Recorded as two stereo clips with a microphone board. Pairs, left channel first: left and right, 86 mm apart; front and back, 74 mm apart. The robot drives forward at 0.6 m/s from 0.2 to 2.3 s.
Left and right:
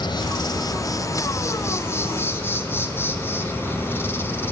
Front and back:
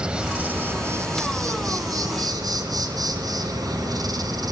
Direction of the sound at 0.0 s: 105° left.